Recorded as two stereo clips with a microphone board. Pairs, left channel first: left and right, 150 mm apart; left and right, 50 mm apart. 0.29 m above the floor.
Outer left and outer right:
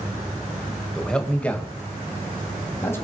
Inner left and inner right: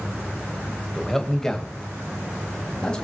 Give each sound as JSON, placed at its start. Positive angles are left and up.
{"t": 0.9, "sound": "a man speaking", "side_deg": 5, "distance_m": 1.4}